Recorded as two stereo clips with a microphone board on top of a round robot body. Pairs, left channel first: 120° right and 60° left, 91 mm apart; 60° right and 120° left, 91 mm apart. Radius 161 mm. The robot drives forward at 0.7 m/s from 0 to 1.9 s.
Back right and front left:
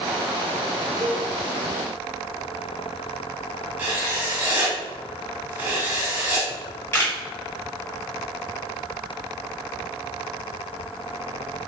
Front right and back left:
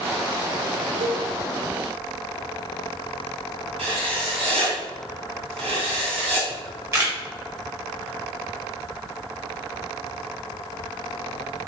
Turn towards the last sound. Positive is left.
turn(degrees=175)